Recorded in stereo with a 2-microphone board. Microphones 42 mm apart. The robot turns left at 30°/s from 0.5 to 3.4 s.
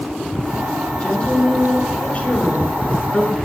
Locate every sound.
1.0 s a woman speaking: 105° left, 1.5 m; by 3.4 s 35° left, 1.5 m